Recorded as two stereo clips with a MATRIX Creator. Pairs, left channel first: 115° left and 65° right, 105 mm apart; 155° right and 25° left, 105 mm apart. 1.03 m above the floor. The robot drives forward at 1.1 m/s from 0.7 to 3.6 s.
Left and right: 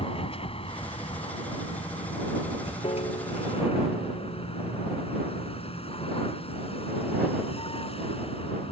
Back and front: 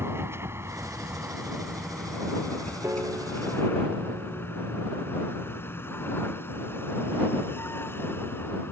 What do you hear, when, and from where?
0.0 s a vehicle: 90° left; by 8.7 s 135° left
2.8 s a piano: 85° left; by 4.5 s 95° left